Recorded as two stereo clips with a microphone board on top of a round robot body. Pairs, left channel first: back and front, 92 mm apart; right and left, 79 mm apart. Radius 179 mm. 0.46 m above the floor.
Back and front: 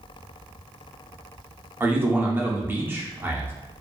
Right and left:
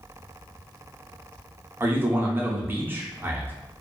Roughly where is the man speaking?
Ahead left.